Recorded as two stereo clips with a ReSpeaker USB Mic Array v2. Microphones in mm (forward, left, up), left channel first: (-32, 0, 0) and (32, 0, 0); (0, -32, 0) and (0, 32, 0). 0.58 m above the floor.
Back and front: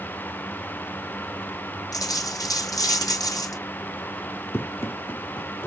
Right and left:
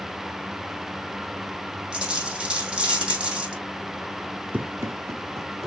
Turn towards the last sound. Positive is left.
turn(degrees=125)